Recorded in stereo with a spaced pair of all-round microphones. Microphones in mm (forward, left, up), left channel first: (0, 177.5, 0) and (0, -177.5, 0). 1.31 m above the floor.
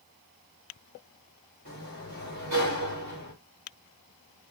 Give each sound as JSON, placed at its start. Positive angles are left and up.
{"t": 1.6, "sound": "a sliding door", "side_deg": -55, "distance_m": 1.6}